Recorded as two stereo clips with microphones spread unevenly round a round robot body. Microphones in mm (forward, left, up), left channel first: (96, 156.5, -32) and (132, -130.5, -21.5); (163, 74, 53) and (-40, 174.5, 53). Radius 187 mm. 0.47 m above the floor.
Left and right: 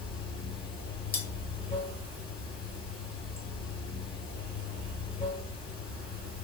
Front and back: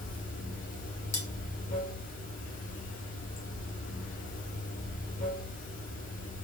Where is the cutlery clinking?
35° left, 1.8 m.